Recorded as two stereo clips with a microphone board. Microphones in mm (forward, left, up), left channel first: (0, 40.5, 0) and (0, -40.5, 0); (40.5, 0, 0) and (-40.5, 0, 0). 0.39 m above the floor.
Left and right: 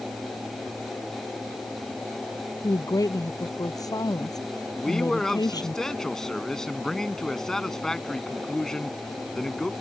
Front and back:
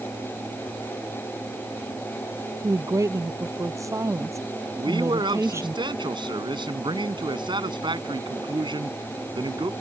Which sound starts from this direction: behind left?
A woman speaking, at 2.6 s.